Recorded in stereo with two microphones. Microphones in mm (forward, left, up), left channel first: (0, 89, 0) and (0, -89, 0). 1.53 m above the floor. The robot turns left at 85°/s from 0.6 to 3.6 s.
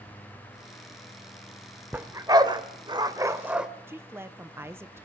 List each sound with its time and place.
1.9 s a dog barking: 10° right (ahead or behind), 1.3 m; by 3.7 s 5° right (ahead or behind), 1.3 m
3.9 s a woman speaking: 15° right (ahead or behind), 0.8 m